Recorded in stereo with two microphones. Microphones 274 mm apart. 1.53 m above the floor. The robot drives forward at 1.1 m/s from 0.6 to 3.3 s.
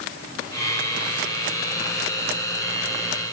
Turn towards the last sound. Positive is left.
No sound to turn to.